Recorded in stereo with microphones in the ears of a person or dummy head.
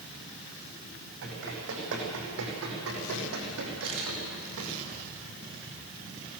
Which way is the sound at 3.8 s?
75° right (ahead or behind).